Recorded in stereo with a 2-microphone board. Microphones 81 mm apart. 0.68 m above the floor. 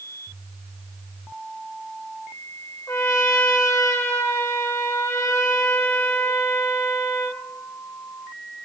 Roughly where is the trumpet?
Left.